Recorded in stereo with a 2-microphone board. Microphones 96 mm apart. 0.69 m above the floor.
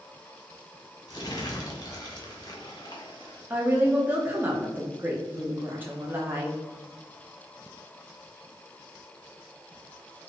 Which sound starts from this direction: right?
A woman speaking, at 3.5 s.